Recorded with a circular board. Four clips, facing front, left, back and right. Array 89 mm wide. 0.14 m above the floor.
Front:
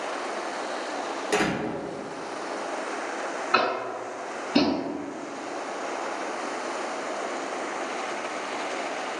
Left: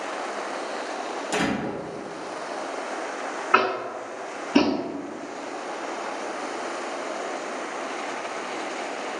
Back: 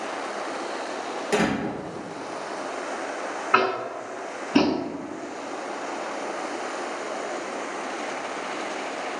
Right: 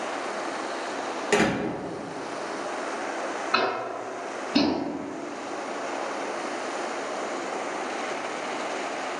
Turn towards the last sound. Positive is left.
turn(degrees=125)